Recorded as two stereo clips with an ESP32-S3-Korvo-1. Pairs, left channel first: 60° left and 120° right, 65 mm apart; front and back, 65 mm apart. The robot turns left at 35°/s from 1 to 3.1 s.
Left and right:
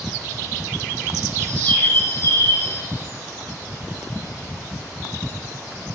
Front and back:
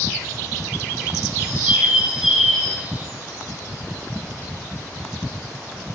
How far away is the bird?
About 3.5 m.